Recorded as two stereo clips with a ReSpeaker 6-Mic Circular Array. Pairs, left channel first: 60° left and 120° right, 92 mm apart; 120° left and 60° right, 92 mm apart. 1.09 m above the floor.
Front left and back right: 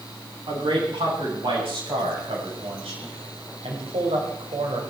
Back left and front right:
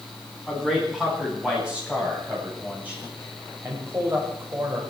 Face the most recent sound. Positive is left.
turn(degrees=-115)